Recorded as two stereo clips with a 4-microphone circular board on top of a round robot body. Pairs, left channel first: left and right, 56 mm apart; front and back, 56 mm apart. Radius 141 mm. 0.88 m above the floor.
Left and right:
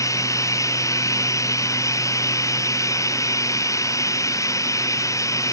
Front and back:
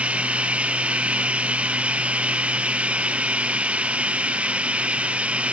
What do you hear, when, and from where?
0.0 s running water: 110° left